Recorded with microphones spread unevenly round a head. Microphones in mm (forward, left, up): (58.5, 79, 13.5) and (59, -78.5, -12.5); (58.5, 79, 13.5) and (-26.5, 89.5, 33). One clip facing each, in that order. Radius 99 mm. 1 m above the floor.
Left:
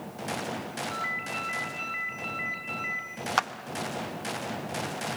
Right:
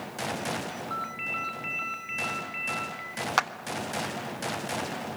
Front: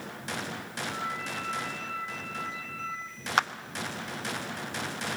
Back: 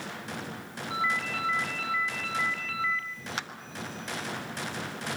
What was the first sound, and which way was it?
A ringtone, straight behind.